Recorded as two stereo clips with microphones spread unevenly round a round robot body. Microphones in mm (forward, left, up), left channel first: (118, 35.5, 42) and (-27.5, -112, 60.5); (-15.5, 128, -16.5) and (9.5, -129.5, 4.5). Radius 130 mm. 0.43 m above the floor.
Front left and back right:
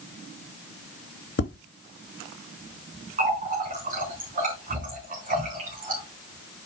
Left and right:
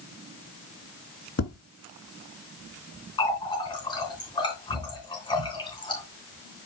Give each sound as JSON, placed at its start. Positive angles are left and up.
{"t": 1.4, "sound": "tapping", "azimuth_deg": 60, "distance_m": 3.0}
{"t": 3.2, "sound": "a running tap", "azimuth_deg": 170, "distance_m": 3.0}